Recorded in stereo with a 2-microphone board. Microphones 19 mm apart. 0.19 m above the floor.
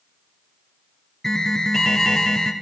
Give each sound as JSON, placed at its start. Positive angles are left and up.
{"t": 1.2, "sound": "an alarm", "side_deg": 20, "distance_m": 1.5}